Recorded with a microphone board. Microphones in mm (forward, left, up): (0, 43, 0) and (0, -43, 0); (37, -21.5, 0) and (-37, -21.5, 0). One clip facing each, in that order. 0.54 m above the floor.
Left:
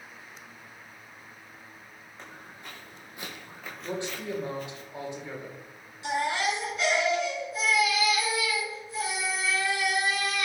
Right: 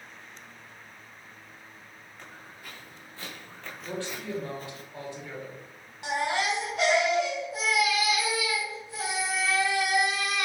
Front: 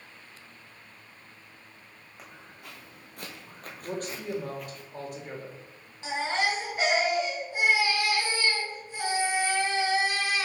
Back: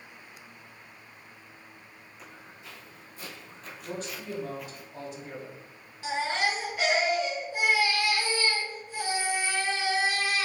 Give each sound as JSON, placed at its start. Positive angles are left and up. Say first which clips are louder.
{"t": 2.2, "sound": "footsteps", "louder": "left 2 dB, front 1 dB", "azimuth_deg": 25, "distance_m": 1.9}
{"t": 3.8, "sound": "a man speaking", "louder": "left 2 dB, front 3 dB", "azimuth_deg": 25, "distance_m": 1.4}
{"t": 6.0, "sound": "a baby crying", "louder": "even, even", "azimuth_deg": -70, "distance_m": 2.0}